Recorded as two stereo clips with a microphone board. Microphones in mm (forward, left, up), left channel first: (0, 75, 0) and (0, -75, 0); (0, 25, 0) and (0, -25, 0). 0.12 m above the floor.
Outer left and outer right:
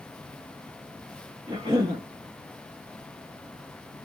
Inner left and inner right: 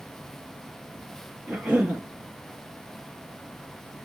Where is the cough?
30° right (ahead or behind), 2 m.